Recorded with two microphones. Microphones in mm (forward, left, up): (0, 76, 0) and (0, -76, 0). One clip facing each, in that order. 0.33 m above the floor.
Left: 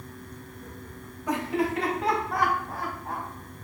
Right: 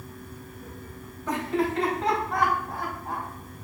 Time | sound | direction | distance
1.3 | laughter | 15° left (ahead or behind) | 2.0 m